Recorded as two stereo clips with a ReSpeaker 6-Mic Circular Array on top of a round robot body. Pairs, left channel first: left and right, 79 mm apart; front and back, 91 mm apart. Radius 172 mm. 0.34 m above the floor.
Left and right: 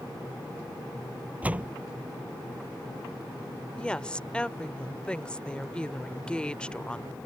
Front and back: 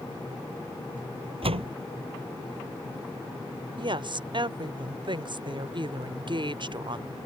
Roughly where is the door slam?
Behind.